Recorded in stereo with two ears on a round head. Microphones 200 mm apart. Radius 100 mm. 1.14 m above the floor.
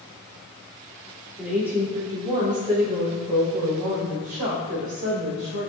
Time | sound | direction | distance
1.4 | a woman speaking | 5° right (ahead or behind) | 2.5 m